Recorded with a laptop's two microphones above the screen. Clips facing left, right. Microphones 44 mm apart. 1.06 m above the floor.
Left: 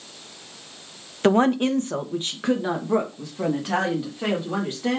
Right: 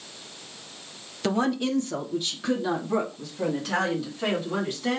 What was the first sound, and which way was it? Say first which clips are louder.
A woman speaking: left 6 dB; 40° left (ahead or behind).